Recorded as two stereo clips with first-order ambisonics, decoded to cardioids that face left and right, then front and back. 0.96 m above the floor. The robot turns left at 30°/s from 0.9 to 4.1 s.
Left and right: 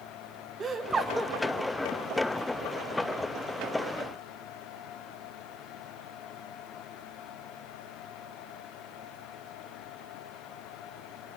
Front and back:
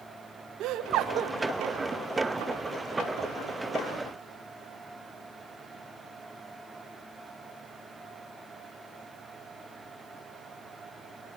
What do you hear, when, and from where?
0.6 s laughter: 155° right, 0.8 m; by 1.3 s 170° right, 0.8 m